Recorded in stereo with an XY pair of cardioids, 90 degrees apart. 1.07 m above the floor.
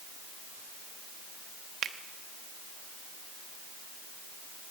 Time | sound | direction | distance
1.8 | a finger snap | 65° right | 1.2 m